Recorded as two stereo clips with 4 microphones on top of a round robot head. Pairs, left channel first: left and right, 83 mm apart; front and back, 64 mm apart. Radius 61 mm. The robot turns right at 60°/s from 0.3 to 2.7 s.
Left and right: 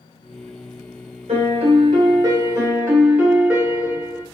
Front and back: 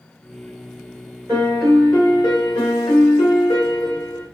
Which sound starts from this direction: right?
A piano, at 1.3 s.